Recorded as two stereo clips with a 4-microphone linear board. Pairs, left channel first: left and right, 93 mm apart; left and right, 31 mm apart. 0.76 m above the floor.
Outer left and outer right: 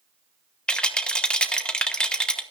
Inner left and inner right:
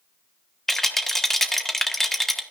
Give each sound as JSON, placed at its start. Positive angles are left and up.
{"t": 0.7, "sound": "a rattle", "side_deg": 10, "distance_m": 1.0}